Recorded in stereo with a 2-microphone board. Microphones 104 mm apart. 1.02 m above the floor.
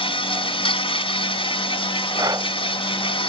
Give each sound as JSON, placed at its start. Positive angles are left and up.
{"t": 0.0, "sound": "an insect", "side_deg": 60}
{"t": 2.2, "sound": "breathing", "side_deg": -40}